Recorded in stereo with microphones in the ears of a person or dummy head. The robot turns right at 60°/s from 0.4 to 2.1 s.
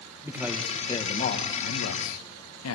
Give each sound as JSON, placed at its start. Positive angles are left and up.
{"t": 0.2, "sound": "a man speaking", "azimuth_deg": -10, "distance_m": 2.0}